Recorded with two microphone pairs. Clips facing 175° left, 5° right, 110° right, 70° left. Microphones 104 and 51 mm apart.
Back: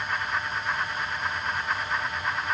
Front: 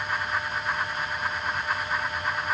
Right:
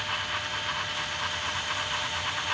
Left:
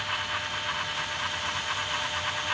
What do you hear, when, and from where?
Only background noise.